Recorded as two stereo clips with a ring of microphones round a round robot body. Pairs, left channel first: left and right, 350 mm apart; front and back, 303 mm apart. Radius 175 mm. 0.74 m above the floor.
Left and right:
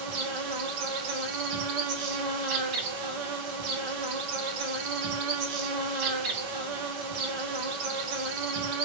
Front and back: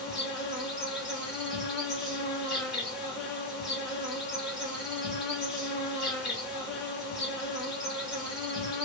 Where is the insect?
90° right, 0.8 m.